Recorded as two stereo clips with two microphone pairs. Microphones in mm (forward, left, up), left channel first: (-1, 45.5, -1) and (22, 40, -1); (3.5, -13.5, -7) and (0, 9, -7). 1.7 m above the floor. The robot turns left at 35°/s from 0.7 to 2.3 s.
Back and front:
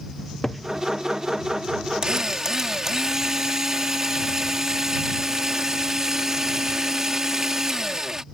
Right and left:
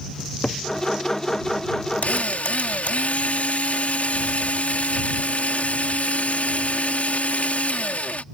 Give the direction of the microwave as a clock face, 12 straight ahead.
I don't hear a microwave.